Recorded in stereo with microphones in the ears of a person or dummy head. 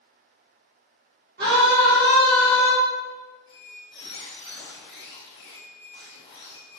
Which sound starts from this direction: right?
A scream, at 1.4 s.